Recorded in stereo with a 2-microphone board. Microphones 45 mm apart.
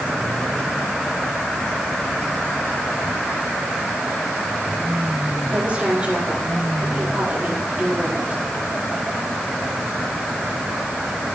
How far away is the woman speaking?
About 8 m.